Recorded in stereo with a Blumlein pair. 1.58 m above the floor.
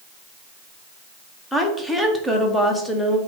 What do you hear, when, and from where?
1.5 s a woman speaking: 5° left, 0.8 m